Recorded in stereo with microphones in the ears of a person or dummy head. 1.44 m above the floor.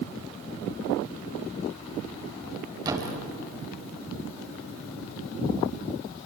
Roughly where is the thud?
Right.